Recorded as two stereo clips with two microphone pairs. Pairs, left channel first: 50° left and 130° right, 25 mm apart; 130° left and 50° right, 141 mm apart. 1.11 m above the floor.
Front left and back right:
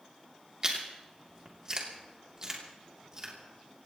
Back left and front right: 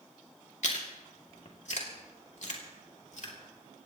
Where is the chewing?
165° left, 3 m.